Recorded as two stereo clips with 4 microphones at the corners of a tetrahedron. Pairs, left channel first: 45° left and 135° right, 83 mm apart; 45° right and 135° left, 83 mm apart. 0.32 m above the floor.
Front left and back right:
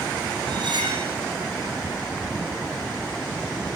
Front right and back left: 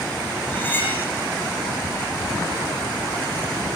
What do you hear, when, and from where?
0.5 s cutlery clinking: 110° right, 8.5 m